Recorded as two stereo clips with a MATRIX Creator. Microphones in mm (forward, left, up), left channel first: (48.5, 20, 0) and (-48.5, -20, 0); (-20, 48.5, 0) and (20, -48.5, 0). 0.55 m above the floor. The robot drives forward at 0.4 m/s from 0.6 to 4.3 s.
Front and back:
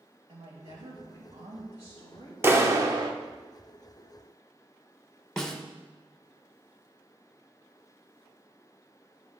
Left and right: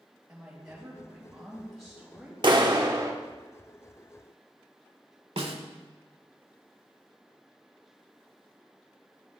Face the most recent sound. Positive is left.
turn(degrees=-60)